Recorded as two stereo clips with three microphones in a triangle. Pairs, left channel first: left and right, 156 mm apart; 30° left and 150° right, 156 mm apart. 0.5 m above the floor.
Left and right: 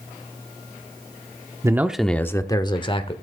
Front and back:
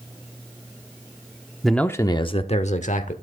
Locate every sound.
1.6 s a man speaking: 65° right, 0.7 m; by 3.1 s 45° left, 1.3 m